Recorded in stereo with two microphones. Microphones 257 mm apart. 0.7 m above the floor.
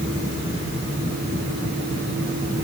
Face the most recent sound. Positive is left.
No sound to turn to.